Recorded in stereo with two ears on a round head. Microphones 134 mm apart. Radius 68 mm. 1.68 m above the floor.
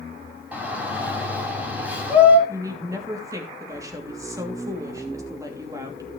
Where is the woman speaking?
25° right (ahead or behind), 3 m.